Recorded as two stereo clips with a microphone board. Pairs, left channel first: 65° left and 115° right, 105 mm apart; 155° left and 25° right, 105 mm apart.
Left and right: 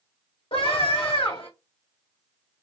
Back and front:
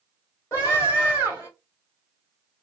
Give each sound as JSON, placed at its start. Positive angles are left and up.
{"t": 0.5, "sound": "a scream", "azimuth_deg": 100, "distance_m": 3.0}